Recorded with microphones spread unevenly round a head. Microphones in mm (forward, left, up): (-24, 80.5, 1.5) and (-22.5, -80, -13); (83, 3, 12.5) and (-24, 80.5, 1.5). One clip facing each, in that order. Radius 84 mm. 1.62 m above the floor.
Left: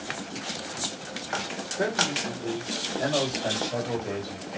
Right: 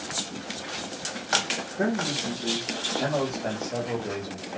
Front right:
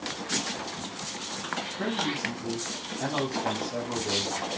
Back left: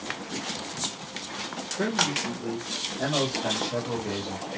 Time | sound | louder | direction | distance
1.8 | a man speaking | right 1 dB, back left 3 dB | 170° right | 2.5 m